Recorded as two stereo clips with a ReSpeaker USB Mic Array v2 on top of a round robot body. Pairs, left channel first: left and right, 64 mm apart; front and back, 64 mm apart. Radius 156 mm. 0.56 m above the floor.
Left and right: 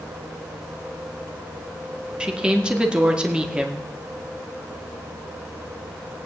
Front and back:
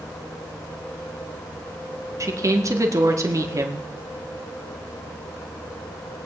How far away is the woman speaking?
About 2 m.